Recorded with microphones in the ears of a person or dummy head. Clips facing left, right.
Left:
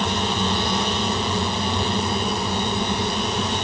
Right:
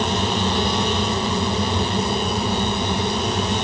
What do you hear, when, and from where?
Only background noise.